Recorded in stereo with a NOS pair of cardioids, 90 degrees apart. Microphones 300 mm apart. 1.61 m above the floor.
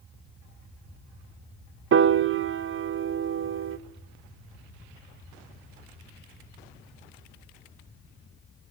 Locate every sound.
1.9 s a piano: 45° right, 0.8 m